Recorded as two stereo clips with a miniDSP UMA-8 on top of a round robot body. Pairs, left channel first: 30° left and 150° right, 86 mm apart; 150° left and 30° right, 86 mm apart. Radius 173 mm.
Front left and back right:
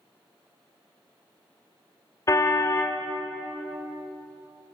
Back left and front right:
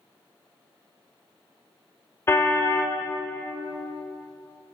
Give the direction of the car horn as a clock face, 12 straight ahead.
9 o'clock.